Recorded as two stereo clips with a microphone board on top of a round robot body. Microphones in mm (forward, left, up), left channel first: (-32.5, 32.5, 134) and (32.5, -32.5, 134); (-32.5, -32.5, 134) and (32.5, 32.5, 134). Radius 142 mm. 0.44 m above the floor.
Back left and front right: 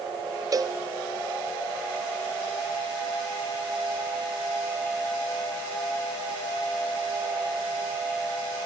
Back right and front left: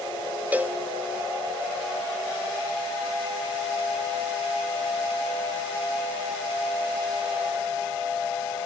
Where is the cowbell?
25° right, 0.5 m.